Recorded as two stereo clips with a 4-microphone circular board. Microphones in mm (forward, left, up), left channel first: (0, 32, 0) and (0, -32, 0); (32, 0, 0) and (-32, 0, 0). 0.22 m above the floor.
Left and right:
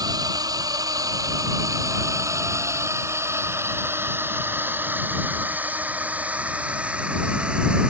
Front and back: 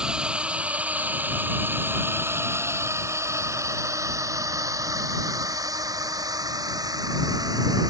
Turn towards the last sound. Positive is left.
turn(degrees=-165)